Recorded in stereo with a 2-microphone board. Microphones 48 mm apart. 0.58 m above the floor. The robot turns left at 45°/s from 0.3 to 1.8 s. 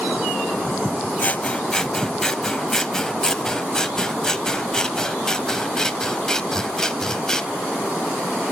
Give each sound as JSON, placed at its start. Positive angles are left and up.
{"t": 1.2, "sound": "scissors", "side_deg": 35, "distance_m": 0.6}